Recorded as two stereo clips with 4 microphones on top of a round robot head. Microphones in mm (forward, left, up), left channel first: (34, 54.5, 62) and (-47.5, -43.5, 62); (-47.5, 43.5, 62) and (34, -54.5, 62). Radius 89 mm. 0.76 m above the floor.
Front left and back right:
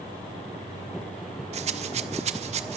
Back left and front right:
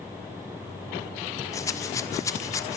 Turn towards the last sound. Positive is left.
turn(degrees=-165)